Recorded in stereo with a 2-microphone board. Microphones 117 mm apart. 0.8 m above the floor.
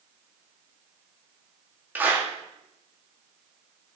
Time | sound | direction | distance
1.9 | a clap | 15° right (ahead or behind) | 1.4 m